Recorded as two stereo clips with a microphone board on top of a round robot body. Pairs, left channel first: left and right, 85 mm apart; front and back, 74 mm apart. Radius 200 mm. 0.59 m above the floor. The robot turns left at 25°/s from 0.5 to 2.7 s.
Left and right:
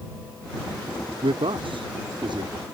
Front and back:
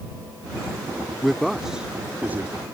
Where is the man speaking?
85° right; by 2.5 s 120° right.